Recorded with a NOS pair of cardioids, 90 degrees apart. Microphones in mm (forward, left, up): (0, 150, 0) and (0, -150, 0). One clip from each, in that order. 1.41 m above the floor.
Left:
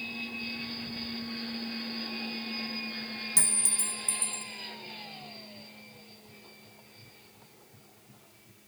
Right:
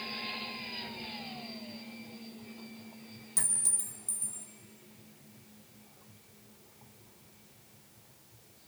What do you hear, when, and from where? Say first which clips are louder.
3.4 s a clink: left 3 dB; 40° left, 1.1 m